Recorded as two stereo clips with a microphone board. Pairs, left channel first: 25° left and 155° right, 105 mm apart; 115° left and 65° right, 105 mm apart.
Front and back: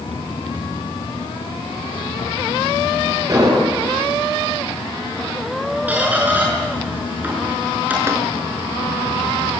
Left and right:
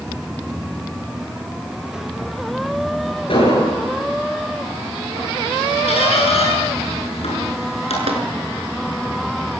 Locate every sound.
3.3 s an explosion: 145° left, 9 m
5.9 s a squeak: 130° left, 7.5 m
8.1 s tapping: 90° right, 4 m